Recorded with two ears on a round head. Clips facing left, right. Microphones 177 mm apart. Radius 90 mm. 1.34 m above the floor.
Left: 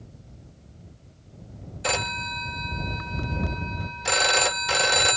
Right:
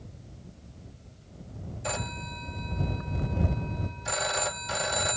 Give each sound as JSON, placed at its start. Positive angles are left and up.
{"t": 1.8, "sound": "a phone ringing", "side_deg": 75}